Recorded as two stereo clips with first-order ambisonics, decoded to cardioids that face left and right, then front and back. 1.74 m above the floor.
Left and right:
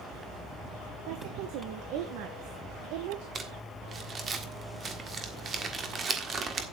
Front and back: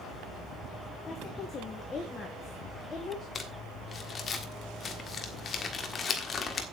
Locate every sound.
1.1 s a woman speaking: 70° right, 1.7 m
3.4 s crumpling: 45° right, 1.5 m